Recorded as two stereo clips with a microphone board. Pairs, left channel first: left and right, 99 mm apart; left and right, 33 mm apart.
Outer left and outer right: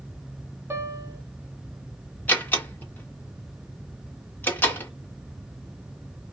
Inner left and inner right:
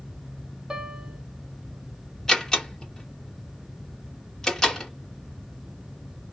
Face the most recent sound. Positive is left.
turn(degrees=20)  # may be behind; listen again after turning